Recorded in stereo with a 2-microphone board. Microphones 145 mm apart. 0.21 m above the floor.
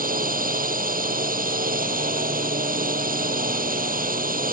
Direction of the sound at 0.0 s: 80° right.